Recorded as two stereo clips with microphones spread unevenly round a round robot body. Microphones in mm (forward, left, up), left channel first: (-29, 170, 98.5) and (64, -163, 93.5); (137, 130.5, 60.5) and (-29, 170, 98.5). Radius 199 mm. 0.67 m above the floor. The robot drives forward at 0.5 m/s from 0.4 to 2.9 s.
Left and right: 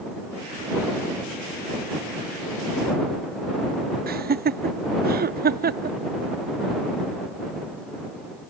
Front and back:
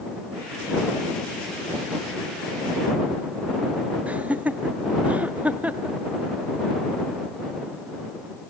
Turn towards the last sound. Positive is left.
turn(degrees=-90)